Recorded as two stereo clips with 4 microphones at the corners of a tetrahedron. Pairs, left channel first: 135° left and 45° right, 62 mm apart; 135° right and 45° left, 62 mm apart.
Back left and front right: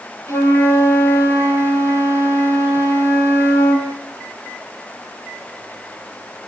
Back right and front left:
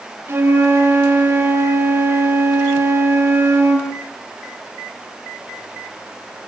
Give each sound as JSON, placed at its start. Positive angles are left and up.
{"t": 0.3, "sound": "a flute", "azimuth_deg": 100, "distance_m": 7.5}